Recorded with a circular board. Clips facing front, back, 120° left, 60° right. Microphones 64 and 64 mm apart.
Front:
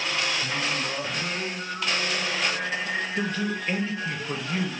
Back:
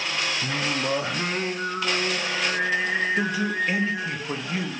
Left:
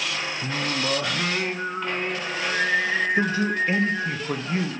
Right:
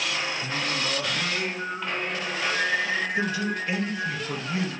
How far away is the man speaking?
About 0.6 m.